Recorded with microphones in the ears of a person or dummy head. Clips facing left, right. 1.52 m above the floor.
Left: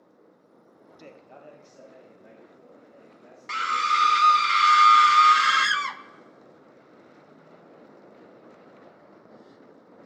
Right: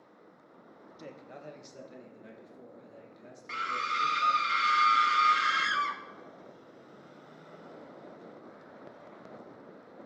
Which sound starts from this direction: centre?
A man speaking, at 1.0 s.